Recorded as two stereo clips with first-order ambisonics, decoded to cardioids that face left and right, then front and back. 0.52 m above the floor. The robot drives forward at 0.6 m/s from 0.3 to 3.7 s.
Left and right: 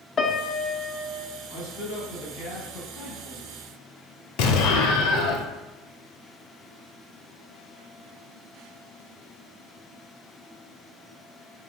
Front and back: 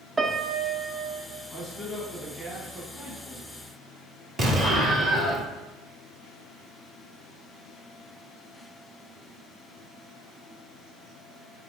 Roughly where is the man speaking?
Left.